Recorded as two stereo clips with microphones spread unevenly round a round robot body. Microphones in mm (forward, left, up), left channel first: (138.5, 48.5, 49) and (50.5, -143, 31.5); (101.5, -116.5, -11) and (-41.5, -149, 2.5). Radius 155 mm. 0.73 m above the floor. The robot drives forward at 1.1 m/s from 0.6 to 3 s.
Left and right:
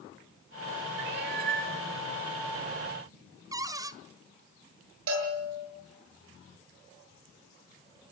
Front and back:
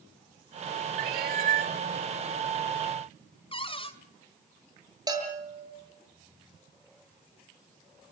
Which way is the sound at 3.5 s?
40° right.